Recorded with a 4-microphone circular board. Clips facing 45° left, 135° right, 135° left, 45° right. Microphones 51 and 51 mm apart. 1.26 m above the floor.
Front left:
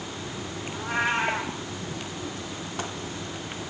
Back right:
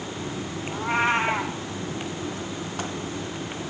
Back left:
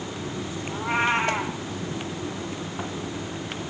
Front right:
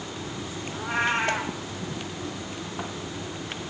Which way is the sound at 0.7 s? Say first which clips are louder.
Back right 3 dB, back left 2 dB; 170° right.